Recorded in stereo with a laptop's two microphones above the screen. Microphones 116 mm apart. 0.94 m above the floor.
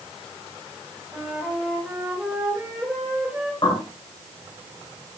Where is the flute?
10° right (ahead or behind), 3 m.